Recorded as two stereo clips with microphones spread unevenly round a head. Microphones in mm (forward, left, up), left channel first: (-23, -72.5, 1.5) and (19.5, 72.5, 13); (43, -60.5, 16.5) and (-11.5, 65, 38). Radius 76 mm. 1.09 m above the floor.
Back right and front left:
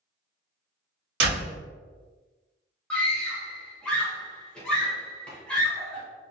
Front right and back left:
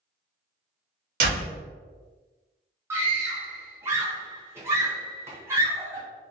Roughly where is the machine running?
I don't hear a machine running.